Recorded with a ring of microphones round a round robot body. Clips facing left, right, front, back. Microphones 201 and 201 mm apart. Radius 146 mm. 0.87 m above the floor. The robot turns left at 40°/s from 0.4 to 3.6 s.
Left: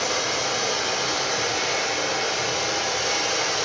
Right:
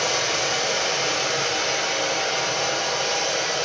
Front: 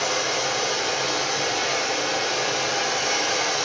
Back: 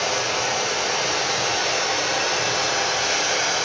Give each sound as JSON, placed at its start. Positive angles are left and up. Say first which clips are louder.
{"t": 0.0, "sound": "running water", "louder": "right 1 dB, back 1 dB", "azimuth_deg": -120, "distance_m": 0.9}